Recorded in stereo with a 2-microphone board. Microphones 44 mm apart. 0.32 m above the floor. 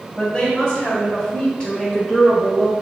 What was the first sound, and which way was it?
A woman speaking, 30° left (ahead or behind).